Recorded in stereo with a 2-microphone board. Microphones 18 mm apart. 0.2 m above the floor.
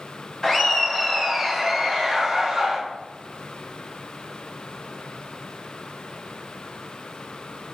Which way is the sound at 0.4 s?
25° left (ahead or behind).